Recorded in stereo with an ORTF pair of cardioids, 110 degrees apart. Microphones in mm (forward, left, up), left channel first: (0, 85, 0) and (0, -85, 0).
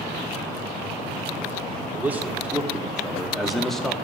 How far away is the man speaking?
About 3.5 m.